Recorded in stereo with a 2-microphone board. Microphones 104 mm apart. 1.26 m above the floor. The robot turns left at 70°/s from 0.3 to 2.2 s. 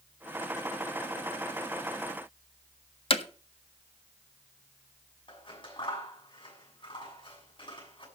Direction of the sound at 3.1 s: 55° left (ahead or behind).